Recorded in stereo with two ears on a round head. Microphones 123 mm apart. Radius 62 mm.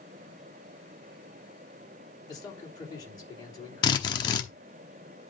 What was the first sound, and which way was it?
A man speaking, 30° left (ahead or behind).